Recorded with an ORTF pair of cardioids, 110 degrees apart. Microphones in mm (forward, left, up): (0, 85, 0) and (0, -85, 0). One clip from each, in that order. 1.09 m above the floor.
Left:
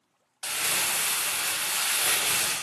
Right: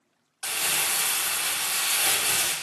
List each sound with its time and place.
0.4 s crumpling: 15° right, 0.5 m